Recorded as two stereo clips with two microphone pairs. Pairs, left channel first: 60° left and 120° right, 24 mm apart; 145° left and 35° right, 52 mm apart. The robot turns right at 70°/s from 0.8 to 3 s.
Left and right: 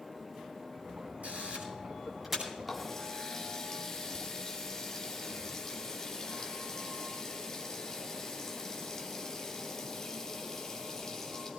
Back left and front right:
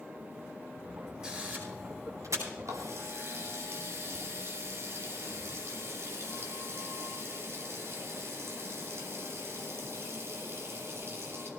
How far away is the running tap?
About 2.5 m.